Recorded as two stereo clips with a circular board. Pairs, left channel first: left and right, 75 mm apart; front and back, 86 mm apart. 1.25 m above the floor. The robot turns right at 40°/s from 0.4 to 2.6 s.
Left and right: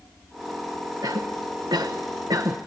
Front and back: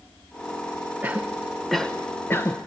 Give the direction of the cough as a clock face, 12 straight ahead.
4 o'clock.